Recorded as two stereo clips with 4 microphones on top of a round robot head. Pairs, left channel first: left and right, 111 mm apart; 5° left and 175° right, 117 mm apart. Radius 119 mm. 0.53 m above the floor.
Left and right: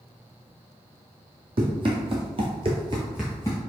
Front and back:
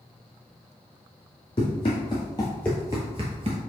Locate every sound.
1.6 s running footsteps: 50° right, 1.4 m; by 3.6 s 155° left, 0.8 m